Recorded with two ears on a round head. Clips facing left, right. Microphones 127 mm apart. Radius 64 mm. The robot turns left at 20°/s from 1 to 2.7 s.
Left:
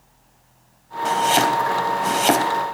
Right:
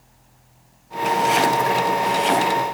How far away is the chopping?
About 3 m.